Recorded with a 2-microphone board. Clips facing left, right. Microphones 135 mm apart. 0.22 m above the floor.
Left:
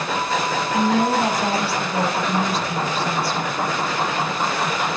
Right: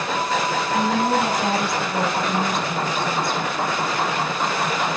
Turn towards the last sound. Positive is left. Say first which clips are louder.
# left 2 dB
turn(degrees=30)  # may be behind; listen again after turning